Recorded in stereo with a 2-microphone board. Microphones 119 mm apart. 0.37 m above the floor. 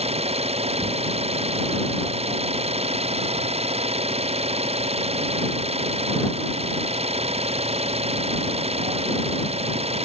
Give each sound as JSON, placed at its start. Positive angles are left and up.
{"t": 0.0, "sound": "an engine running", "side_deg": -60}